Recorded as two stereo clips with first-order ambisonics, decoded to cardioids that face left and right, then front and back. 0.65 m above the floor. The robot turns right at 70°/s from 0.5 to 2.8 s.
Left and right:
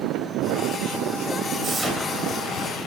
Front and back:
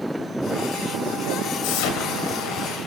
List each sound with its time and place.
1.6 s an explosion: 25° right, 2 m; by 2.9 s 55° left, 2 m